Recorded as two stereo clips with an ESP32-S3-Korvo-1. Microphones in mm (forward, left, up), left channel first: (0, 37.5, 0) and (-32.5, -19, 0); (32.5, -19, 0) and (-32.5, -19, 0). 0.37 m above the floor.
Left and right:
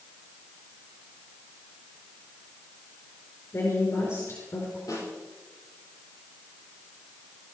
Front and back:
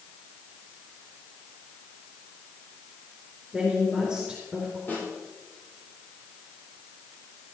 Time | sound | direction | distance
3.5 | a woman speaking | 100° left | 5 m
4.9 | a snare drum | 60° left | 9.5 m